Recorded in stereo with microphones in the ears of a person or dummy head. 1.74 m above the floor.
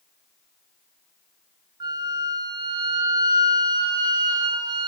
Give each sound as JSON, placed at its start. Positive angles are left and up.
{"t": 1.8, "sound": "a flute", "side_deg": -20, "distance_m": 0.6}